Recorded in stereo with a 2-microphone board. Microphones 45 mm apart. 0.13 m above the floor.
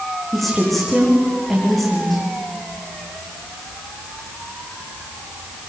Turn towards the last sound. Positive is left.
turn(degrees=0)  # may be behind; listen again after turning